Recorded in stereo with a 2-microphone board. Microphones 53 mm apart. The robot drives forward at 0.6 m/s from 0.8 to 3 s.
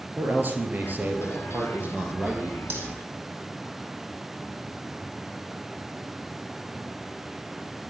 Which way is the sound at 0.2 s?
35° right (ahead or behind).